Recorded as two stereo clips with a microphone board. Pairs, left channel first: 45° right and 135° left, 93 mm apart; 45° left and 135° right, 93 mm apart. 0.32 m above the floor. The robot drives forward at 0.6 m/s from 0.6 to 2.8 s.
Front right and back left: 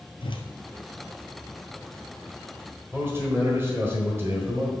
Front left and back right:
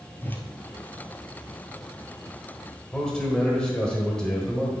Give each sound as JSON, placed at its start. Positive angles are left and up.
{"t": 0.2, "sound": "a whoosh", "azimuth_deg": -25, "distance_m": 1.1}
{"t": 2.9, "sound": "a man speaking", "azimuth_deg": 120, "distance_m": 1.4}